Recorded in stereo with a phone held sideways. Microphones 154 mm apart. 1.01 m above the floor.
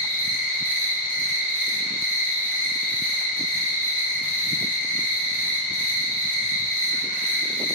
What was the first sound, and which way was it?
An insect, 10° right (ahead or behind).